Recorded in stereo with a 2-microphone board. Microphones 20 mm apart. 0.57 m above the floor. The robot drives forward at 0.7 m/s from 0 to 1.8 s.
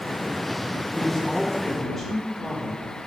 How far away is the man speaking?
About 1.2 m.